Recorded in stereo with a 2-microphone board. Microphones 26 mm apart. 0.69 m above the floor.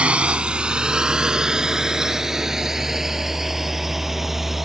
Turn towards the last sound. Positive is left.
turn(degrees=-10)  # may be behind; listen again after turning